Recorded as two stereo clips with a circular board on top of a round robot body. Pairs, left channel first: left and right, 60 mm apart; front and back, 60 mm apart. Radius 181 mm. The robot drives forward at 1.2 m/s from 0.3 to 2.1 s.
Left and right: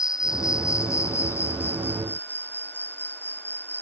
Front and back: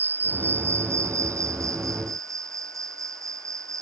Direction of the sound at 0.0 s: 120° left.